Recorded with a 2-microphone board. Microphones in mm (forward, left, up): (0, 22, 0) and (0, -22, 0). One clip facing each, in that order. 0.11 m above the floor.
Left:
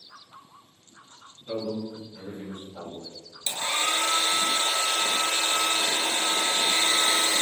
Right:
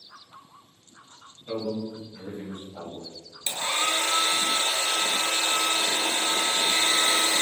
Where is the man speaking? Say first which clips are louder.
Right 1 dB; 40° right (ahead or behind), 1.6 m.